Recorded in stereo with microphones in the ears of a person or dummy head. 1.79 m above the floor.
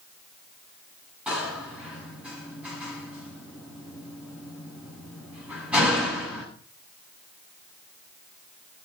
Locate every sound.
1.3 s a door slam: 5° right (ahead or behind), 9 m